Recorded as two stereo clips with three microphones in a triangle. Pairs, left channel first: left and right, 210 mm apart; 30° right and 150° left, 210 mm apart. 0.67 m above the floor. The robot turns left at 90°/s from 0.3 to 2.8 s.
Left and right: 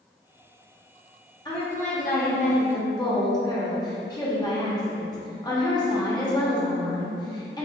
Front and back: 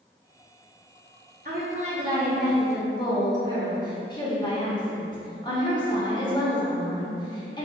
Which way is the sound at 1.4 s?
150° left.